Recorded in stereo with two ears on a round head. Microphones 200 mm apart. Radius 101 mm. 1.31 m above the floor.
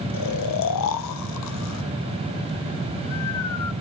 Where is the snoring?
80° left, 0.7 m.